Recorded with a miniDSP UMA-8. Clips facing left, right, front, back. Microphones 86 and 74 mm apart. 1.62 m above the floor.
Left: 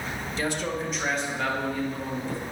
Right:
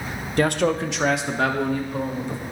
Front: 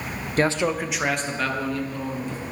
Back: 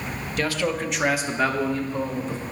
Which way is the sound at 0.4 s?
55° right.